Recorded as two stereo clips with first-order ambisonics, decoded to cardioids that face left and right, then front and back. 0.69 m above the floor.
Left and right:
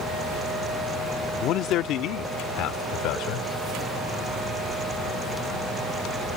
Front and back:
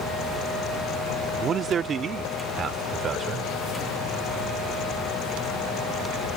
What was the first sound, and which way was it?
A man speaking, 120° left.